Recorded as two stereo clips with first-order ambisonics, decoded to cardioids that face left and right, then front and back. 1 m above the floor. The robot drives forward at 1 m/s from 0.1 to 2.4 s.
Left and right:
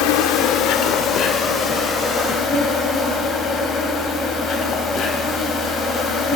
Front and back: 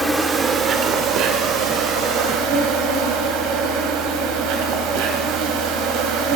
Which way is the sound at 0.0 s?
100° left.